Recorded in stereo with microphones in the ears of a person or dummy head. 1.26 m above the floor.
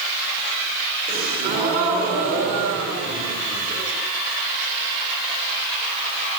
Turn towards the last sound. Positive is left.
turn(degrees=-50)  # may be behind; listen again after turning